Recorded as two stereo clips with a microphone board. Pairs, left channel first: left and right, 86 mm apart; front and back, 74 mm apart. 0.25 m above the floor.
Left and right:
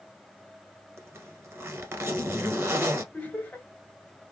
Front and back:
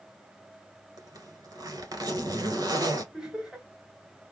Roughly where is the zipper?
Behind right.